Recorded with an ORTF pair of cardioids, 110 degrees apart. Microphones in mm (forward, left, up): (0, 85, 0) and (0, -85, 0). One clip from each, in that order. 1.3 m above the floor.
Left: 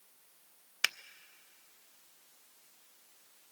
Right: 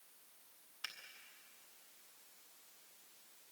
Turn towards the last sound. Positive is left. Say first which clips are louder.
# left 15 dB
turn(degrees=70)